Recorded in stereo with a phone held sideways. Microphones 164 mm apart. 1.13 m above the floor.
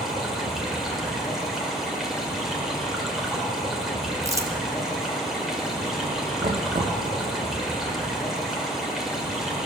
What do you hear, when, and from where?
0.0 s running water: centre (ahead or behind), 2 m
4.2 s crumpling: 20° right (ahead or behind), 1.0 m
6.4 s knocking: 50° right (ahead or behind), 0.7 m